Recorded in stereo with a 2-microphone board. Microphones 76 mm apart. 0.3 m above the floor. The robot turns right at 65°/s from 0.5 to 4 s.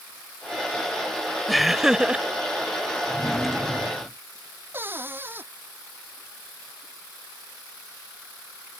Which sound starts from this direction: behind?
A drawer, at 3.1 s.